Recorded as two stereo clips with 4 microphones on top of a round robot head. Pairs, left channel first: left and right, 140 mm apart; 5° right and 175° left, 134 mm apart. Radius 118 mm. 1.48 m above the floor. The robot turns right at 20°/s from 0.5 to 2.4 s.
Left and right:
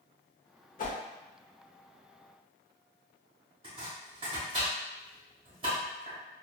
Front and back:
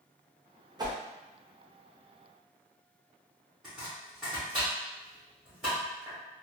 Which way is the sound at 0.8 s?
115° left.